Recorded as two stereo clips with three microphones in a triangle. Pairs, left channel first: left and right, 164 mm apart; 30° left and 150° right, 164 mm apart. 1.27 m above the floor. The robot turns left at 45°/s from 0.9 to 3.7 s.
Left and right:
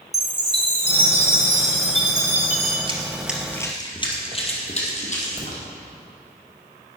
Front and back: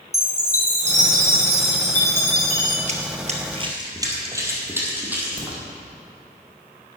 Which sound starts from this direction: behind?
A crack, at 5.4 s.